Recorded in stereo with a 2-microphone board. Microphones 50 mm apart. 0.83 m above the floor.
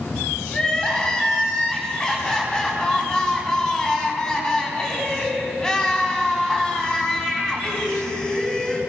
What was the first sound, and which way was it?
Crying, 15° left (ahead or behind).